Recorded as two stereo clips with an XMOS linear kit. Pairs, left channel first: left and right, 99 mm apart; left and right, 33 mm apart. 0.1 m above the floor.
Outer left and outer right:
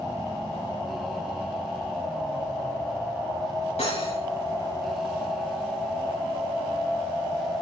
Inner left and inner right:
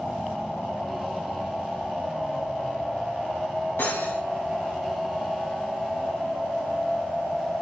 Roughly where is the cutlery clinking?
Left.